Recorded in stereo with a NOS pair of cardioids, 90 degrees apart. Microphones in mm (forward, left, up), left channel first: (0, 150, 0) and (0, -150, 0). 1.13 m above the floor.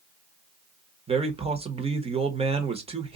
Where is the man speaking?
20° right, 1.3 m.